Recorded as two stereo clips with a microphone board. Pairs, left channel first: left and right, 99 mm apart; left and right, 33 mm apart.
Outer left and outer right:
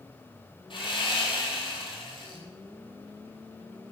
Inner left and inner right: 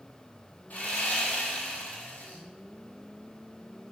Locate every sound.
0.7 s sawing: 55° left (ahead or behind), 1.0 m